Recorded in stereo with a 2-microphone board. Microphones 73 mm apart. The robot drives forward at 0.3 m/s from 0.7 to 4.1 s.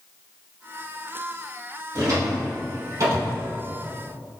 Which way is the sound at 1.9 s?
50° right (ahead or behind).